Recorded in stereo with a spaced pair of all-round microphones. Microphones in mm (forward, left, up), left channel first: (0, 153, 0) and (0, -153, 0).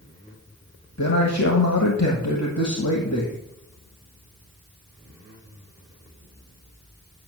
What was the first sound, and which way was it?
A man speaking, 60° left (ahead or behind).